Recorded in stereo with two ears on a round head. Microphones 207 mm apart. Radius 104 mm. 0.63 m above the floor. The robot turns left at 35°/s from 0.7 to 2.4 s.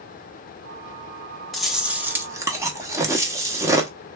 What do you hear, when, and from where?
1.5 s chewing: centre (ahead or behind), 0.9 m; by 3.9 s 15° right (ahead or behind), 0.9 m